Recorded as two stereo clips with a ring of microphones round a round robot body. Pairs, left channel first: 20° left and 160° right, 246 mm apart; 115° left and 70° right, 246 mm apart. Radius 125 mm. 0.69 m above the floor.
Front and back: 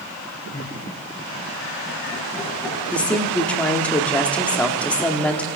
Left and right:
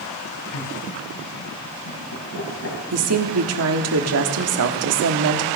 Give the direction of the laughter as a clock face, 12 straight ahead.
9 o'clock.